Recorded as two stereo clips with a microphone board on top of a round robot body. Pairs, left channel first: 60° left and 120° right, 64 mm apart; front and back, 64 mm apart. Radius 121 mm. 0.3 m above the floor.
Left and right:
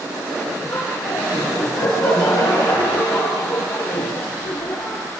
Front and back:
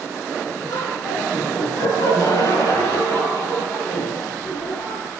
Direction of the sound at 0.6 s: 25° left.